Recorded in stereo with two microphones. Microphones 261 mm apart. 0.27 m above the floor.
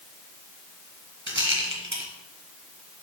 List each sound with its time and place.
1.3 s a rattle: 50° right (ahead or behind), 1.8 m